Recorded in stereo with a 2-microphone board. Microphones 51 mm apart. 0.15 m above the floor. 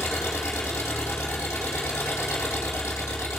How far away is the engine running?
About 2.5 m.